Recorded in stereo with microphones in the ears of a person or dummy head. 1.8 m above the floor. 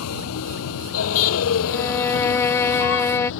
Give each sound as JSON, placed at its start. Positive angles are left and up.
{"t": 0.0, "sound": "a vehicle", "side_deg": 80}
{"t": 1.7, "sound": "a violin", "side_deg": 10}